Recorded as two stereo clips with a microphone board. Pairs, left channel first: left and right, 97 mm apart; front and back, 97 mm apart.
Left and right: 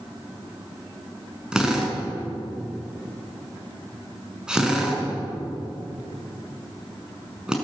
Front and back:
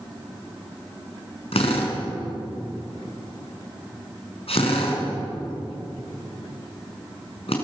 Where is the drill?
10° right, 5.5 m.